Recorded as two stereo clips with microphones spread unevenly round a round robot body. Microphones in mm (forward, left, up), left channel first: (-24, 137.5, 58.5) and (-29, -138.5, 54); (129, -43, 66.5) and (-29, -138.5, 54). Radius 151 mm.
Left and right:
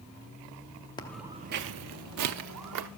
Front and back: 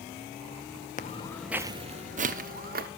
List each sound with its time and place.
1.0 s footsteps: 20° left, 0.6 m; by 2.9 s 115° right, 1.4 m